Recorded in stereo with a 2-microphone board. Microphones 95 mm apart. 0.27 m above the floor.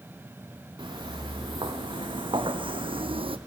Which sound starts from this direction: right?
Footsteps, at 0.8 s.